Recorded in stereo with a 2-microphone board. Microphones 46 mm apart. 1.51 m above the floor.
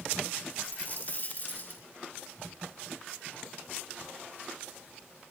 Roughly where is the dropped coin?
Left.